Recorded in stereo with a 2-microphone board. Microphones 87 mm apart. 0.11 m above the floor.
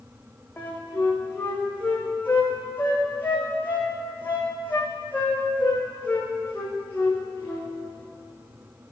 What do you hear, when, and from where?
0.6 s a flute: 20° left (ahead or behind), 2.5 m